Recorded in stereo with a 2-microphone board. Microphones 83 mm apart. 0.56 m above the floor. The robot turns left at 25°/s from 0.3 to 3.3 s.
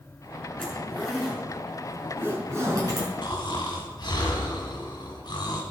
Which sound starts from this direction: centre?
A zipper, at 0.6 s.